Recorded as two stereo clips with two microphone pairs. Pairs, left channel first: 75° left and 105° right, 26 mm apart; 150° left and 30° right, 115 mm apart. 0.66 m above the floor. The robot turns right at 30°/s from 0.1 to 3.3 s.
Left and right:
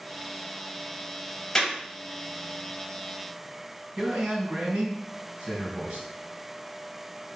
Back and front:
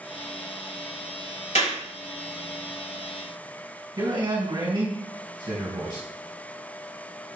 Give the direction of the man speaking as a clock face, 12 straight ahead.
2 o'clock.